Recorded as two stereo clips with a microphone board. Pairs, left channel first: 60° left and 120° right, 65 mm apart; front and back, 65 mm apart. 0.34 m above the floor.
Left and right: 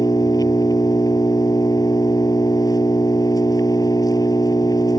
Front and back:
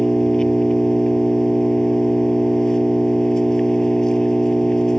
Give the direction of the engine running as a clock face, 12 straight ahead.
9 o'clock.